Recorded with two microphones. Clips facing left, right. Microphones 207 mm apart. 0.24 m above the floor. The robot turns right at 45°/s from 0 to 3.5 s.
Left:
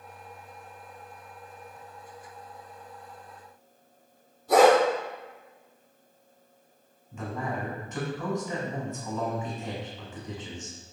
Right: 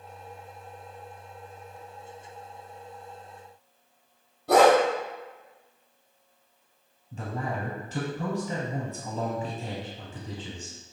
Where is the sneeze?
I don't hear a sneeze.